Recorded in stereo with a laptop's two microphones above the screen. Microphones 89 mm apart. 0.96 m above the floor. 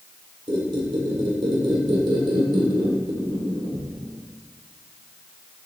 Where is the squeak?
80° right, 2 m.